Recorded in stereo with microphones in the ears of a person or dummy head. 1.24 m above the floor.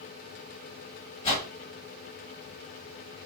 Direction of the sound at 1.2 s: 35° left (ahead or behind).